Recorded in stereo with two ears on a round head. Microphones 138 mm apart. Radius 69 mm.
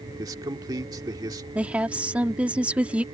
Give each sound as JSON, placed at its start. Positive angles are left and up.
{"t": 0.2, "sound": "a man speaking", "side_deg": -25}
{"t": 1.6, "sound": "a woman speaking", "side_deg": -10}